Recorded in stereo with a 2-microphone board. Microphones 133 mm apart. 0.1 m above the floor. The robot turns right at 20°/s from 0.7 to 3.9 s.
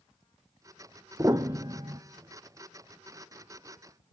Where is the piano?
25° right (ahead or behind), 1.0 m; by 2.0 s 40° right (ahead or behind), 1.0 m.